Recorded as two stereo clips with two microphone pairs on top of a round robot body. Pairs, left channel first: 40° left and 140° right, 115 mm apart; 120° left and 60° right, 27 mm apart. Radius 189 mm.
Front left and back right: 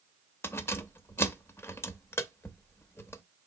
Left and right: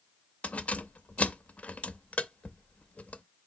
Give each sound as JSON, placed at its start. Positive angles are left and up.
{"t": 0.4, "sound": "keys jangling", "azimuth_deg": 110, "distance_m": 0.7}